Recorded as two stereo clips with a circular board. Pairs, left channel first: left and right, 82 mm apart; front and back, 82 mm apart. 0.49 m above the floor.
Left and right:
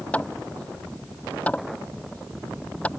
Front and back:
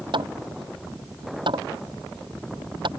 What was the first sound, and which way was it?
Hammering, 165° left.